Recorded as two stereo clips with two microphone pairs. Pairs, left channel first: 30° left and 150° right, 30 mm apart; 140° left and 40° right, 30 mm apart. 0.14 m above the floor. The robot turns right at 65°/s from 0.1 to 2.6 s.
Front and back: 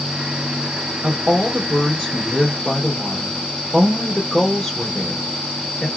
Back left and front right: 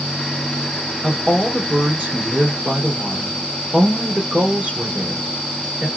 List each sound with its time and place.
1.0 s a woman speaking: 135° right, 2.5 m; by 5.9 s 35° right, 2.5 m